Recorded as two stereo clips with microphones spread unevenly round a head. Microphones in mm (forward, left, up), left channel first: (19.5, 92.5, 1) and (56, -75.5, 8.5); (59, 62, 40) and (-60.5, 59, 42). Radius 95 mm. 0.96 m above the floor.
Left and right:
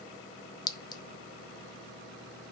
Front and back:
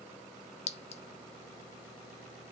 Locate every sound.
0.7 s a clink: 35° left, 0.9 m